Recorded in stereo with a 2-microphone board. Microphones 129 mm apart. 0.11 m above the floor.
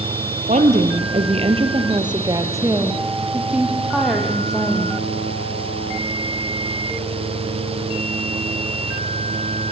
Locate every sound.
0.5 s a woman speaking: 65° right (ahead or behind), 3 m; by 5.0 s 5° left (ahead or behind), 5.5 m